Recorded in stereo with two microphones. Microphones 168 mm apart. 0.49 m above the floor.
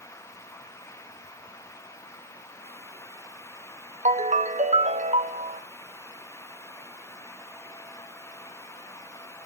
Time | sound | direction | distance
4.0 | a ringtone | 40° right (ahead or behind) | 0.6 m